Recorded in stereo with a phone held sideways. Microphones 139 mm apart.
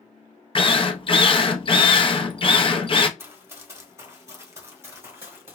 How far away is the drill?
About 0.5 m.